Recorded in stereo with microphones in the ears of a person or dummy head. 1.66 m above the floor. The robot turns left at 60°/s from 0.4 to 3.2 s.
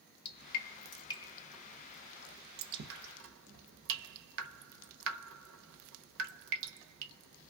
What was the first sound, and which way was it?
Dripping, 65° left (ahead or behind).